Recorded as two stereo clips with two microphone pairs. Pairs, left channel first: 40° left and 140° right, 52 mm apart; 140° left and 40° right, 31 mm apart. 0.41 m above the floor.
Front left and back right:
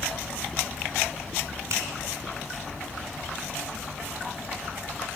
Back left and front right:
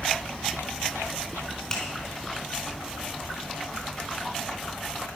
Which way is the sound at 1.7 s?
155° right.